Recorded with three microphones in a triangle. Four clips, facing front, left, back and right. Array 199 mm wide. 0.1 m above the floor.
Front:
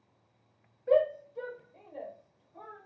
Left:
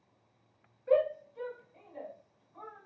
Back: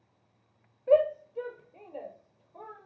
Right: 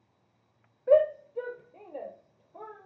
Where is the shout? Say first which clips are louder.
Right 6 dB, back 3 dB; 100° right, 2.5 m; by 2.9 s 105° right, 4.5 m.